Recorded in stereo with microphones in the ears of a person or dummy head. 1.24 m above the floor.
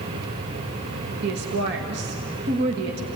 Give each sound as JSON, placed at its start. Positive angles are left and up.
{"t": 1.2, "sound": "a woman speaking", "side_deg": -65, "distance_m": 1.7}